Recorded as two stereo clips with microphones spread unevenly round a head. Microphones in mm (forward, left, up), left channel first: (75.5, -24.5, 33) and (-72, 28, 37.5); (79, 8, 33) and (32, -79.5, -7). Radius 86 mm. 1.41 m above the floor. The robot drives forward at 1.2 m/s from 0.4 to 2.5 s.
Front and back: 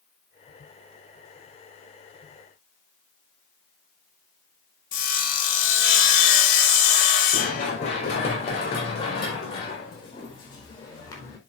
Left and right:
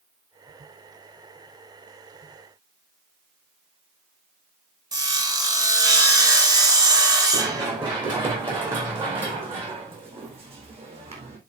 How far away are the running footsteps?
About 6 m.